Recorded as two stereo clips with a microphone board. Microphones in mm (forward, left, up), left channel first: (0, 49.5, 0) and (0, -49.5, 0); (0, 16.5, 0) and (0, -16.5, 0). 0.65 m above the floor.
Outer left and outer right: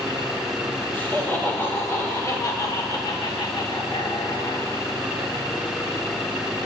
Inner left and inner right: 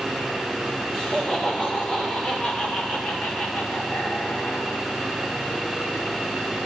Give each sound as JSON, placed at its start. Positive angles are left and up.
{"t": 0.9, "sound": "laughter", "side_deg": 20, "distance_m": 3.0}